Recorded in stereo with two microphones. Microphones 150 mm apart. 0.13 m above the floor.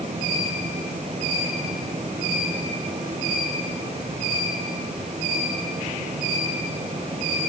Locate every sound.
Only background noise.